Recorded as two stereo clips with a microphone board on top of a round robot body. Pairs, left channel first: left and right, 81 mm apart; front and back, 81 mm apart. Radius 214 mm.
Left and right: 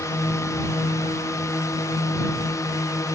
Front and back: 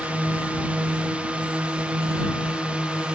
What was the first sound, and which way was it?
A drone, 115° left.